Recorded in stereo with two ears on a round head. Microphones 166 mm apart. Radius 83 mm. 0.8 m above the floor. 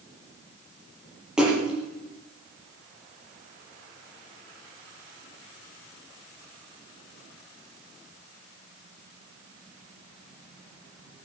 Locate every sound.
1.4 s a splash: 5° right (ahead or behind), 6.5 m